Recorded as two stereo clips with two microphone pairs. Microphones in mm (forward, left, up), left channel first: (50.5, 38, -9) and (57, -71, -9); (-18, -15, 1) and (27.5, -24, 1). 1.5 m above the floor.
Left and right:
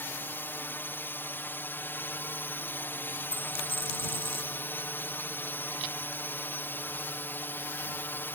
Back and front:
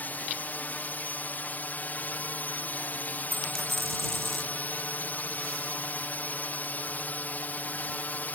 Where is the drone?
155° left.